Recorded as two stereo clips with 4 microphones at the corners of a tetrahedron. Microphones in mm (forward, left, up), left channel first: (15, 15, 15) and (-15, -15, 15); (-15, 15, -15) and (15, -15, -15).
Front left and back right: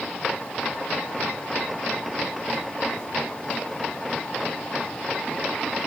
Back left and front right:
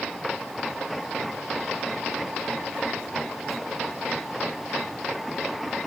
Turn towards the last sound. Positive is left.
No sound to turn to.